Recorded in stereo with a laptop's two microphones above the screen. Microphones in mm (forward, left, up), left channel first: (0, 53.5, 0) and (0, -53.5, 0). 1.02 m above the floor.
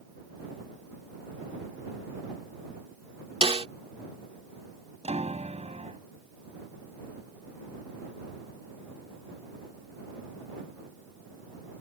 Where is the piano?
85° right.